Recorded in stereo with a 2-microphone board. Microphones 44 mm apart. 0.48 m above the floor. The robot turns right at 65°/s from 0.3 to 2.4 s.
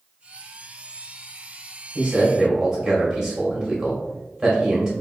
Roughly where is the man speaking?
Right.